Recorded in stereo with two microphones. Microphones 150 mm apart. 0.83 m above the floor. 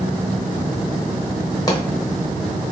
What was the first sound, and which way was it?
A pop, 25° left (ahead or behind).